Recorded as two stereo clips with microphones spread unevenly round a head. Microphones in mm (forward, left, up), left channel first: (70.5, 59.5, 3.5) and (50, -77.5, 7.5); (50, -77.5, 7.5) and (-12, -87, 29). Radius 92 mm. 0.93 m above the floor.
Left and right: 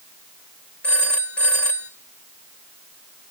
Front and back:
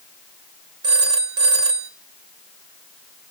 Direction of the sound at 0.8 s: 165° left.